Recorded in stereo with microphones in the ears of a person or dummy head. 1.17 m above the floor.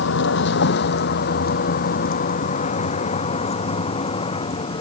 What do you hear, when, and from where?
0.0 s a vehicle: 75° left (ahead or behind); by 4.8 s 30° left (ahead or behind)